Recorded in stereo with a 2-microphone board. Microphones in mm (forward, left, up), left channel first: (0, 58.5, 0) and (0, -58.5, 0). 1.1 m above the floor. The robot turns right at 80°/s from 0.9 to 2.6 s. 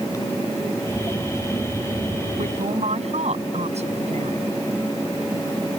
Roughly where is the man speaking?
Right.